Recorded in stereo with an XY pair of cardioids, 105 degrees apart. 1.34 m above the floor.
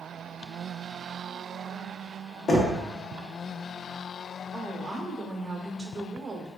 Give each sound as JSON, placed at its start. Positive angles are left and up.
{"t": 2.5, "sound": "knocking", "azimuth_deg": 50, "distance_m": 0.7}
{"t": 4.5, "sound": "a woman speaking", "azimuth_deg": -25, "distance_m": 0.7}